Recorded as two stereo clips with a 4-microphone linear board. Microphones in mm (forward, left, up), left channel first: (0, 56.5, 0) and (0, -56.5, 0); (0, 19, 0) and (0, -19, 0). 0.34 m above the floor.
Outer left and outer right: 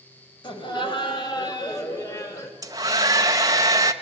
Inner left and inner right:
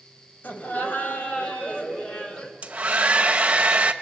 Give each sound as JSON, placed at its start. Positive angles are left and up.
{"t": 0.4, "sound": "laughter", "side_deg": 45, "distance_m": 2.0}
{"t": 2.6, "sound": "a hair dryer", "side_deg": -35, "distance_m": 0.9}